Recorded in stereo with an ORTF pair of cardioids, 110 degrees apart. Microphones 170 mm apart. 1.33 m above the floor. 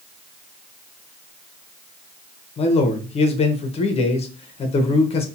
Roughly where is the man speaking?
Ahead left.